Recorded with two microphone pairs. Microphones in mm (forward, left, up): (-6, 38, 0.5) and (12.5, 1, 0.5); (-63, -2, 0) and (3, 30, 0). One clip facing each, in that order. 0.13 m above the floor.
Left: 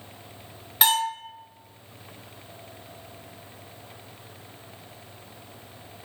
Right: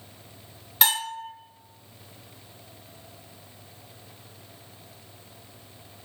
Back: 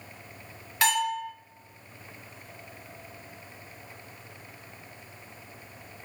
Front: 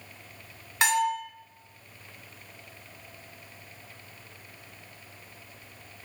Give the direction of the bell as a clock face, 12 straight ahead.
10 o'clock.